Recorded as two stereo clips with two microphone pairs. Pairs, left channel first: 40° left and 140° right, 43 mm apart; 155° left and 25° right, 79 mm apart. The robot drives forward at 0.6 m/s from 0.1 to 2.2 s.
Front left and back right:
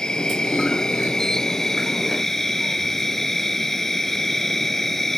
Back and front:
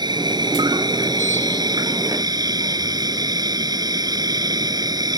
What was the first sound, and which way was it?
An insect, 30° right.